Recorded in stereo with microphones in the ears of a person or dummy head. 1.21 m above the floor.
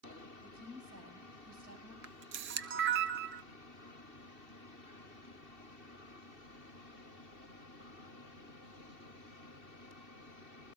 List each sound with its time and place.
0.4 s a woman speaking: 55° right (ahead or behind), 5.5 m
2.0 s a camera shutter: 55° right (ahead or behind), 0.5 m